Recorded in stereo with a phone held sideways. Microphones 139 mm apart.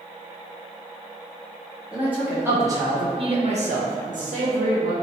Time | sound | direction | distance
1.9 | a man speaking | 10° right (ahead or behind) | 1.1 m